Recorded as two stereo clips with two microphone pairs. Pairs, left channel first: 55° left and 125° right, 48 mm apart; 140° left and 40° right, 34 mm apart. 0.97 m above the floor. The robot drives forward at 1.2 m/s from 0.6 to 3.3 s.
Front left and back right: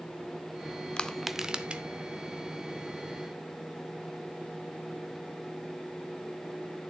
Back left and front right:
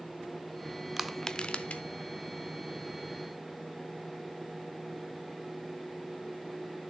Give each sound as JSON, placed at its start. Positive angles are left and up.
{"t": 1.0, "sound": "crushing", "azimuth_deg": 20, "distance_m": 0.6}